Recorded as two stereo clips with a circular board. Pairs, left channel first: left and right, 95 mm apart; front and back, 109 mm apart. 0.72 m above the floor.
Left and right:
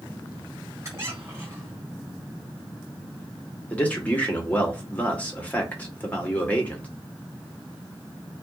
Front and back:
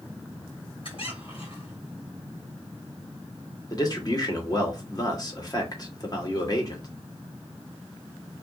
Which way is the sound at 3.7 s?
25° left.